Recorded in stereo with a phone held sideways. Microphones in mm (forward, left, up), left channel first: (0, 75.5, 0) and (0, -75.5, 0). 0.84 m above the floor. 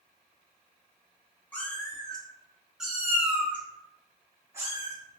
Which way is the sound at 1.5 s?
10° left (ahead or behind).